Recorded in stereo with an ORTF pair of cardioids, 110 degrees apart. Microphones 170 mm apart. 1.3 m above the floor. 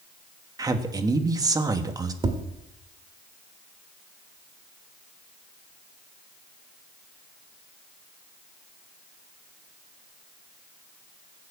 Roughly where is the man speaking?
Ahead.